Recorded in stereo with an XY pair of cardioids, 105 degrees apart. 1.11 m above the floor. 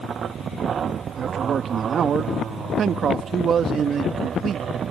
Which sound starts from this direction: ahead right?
A man speaking, at 1.2 s.